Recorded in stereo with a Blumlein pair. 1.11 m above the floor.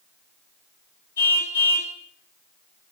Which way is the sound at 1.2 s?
70° left.